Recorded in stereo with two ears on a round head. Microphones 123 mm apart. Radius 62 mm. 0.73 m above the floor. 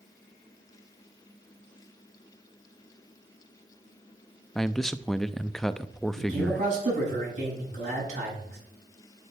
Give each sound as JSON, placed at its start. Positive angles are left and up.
{"t": 4.5, "sound": "a man speaking", "side_deg": 5, "distance_m": 0.5}
{"t": 6.2, "sound": "a man speaking", "side_deg": -55, "distance_m": 7.5}